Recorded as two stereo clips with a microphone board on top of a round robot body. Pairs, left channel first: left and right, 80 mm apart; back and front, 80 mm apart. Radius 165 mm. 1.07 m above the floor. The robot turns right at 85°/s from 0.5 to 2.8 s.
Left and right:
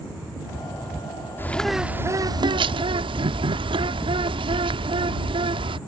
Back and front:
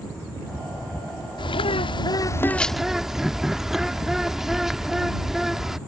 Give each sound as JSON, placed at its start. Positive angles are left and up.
{"t": 1.4, "sound": "a bird", "azimuth_deg": 155}